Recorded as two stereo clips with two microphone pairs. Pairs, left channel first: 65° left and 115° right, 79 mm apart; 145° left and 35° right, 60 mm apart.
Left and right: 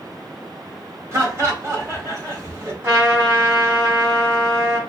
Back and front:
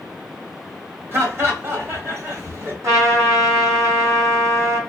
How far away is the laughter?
About 1.8 m.